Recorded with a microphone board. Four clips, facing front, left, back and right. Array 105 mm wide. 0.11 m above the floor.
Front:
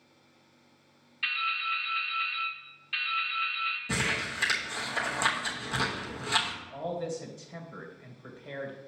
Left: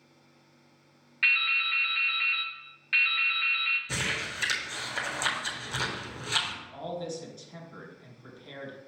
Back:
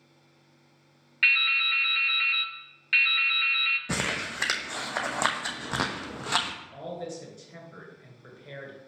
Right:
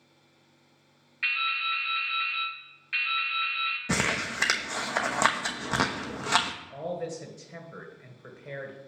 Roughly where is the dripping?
Behind.